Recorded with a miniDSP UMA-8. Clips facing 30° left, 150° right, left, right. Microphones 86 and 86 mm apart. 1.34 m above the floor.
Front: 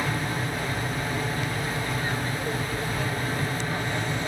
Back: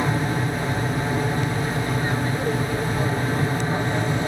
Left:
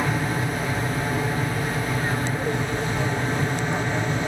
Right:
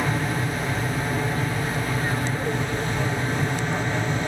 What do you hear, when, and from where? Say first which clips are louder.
0.0 s an aircraft: back 5 dB, left 1 dB; 170° left